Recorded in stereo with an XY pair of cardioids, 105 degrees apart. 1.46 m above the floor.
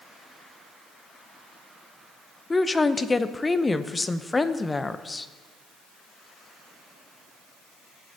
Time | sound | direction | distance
2.5 | a woman speaking | 20° left | 0.6 m